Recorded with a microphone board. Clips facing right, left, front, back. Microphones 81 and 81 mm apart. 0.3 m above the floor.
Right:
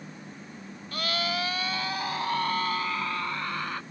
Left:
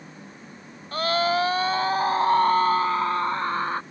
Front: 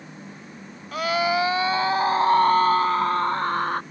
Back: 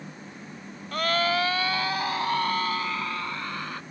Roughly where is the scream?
Left.